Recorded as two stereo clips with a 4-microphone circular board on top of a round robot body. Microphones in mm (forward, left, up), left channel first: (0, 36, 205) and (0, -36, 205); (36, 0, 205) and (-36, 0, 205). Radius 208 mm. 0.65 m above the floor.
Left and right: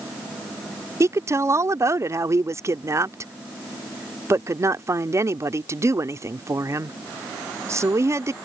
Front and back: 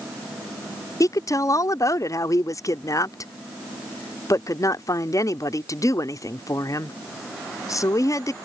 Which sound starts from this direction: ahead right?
A woman speaking, at 1.0 s.